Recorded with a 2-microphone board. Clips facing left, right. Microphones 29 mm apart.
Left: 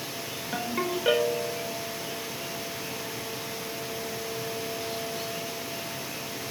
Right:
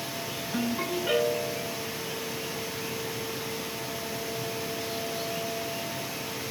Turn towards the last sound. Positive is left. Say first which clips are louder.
# even
turn(degrees=80)